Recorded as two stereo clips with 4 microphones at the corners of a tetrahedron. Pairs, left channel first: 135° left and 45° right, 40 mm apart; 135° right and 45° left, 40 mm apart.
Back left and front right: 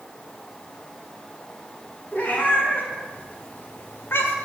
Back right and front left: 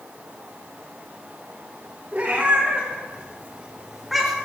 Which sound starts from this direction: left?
A cat meowing, at 2.1 s.